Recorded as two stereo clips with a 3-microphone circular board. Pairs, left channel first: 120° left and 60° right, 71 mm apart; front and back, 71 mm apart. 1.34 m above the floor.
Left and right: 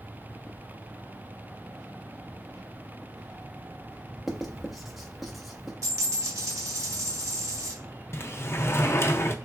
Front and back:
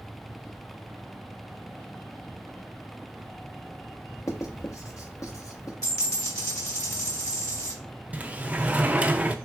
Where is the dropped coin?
25° right, 2.0 m.